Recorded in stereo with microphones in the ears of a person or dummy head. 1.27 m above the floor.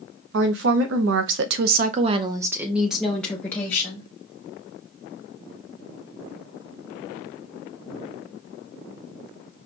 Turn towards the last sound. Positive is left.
turn(degrees=15)  # may be behind; listen again after turning